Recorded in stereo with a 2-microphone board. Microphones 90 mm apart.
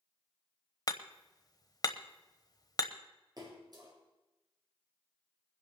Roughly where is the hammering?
Left.